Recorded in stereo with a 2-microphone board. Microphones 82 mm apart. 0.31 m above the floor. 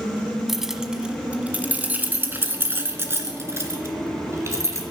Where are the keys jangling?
Centre (ahead or behind), 1.3 m; by 4.8 s 35° right (ahead or behind), 3 m.